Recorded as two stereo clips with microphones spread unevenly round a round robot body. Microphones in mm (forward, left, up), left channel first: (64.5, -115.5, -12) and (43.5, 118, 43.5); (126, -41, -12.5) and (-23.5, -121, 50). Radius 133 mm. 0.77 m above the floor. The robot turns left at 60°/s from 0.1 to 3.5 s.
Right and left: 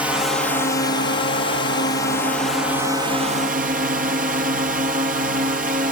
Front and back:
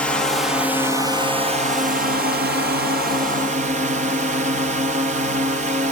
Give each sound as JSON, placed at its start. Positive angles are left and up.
{"t": 0.0, "sound": "a drone", "azimuth_deg": -10}